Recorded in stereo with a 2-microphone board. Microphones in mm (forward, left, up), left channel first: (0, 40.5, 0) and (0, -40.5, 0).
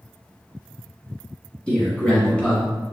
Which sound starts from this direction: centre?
A man speaking, at 1.7 s.